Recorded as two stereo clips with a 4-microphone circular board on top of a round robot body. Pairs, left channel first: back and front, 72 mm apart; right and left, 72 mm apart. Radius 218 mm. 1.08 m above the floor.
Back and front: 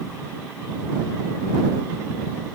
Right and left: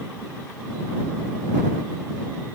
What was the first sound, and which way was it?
Only background noise.